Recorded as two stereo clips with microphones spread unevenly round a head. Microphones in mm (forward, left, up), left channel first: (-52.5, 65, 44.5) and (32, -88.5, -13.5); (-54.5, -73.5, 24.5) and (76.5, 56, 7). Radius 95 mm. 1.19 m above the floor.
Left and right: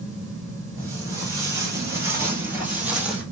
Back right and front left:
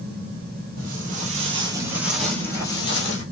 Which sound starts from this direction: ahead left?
Footsteps, at 0.8 s.